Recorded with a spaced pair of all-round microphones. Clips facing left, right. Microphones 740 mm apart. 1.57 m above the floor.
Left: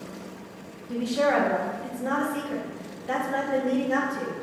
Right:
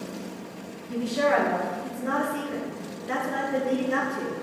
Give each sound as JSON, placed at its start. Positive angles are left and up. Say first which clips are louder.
{"t": 0.9, "sound": "a woman speaking", "louder": "even", "side_deg": 25, "distance_m": 0.8}